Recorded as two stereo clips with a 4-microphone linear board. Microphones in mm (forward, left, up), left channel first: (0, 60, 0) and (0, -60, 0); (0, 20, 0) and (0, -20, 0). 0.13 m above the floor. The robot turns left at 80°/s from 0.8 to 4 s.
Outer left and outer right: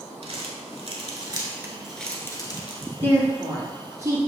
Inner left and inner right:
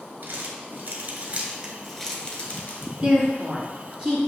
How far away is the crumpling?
About 0.9 m.